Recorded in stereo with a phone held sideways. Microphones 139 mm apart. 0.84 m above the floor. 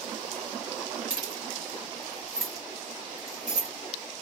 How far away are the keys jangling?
About 0.8 m.